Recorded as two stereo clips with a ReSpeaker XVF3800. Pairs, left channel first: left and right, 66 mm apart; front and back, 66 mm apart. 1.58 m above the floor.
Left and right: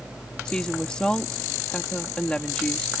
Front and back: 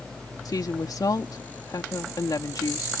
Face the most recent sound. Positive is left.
turn(degrees=15)